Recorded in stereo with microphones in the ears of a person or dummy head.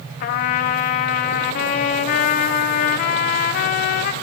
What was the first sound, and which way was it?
A trumpet, 55° left (ahead or behind).